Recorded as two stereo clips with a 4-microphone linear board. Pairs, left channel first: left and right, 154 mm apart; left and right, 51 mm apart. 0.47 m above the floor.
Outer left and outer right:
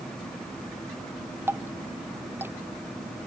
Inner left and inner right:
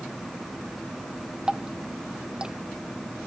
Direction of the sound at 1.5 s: 15° right (ahead or behind).